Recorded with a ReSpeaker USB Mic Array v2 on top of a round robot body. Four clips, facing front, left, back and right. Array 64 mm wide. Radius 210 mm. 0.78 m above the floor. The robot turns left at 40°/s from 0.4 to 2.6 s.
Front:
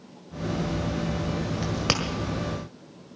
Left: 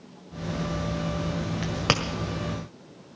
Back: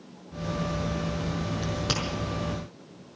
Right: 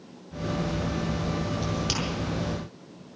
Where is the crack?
75° left, 1.4 m; by 2.0 s 60° left, 1.4 m.